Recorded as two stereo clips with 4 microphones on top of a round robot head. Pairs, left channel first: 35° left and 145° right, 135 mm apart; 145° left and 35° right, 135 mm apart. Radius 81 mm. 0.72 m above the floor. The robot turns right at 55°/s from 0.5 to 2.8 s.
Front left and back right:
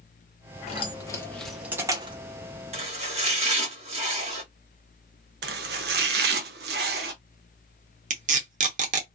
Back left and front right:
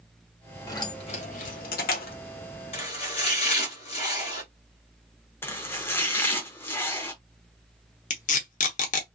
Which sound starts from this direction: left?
Keys jangling, at 0.7 s.